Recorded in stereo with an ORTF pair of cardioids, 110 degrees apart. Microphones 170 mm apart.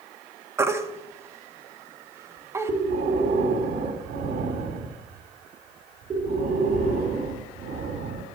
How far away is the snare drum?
No snare drum in this recording.